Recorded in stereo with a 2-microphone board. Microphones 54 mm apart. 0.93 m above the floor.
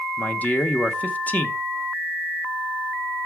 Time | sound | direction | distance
0.2 | a man speaking | 30° left (ahead or behind) | 0.9 m